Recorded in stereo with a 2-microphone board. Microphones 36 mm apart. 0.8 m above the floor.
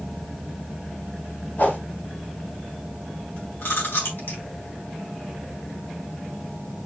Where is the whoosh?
50° left (ahead or behind), 3 m.